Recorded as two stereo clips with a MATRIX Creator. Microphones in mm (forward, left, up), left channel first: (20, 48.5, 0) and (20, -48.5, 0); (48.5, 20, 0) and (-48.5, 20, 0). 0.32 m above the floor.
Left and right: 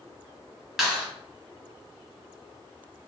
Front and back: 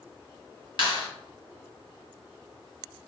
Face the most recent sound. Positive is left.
turn(degrees=-5)